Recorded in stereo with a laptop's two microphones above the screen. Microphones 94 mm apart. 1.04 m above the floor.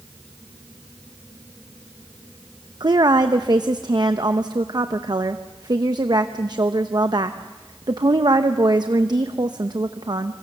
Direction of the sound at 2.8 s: 45° right (ahead or behind).